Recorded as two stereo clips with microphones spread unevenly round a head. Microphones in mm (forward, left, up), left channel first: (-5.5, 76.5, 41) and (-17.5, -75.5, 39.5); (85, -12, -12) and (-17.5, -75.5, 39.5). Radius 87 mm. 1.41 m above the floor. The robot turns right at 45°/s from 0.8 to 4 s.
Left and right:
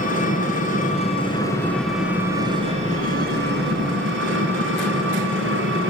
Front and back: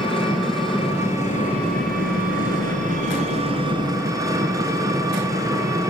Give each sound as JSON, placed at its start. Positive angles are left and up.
{"t": 0.0, "sound": "an engine running", "azimuth_deg": 125, "distance_m": 7.0}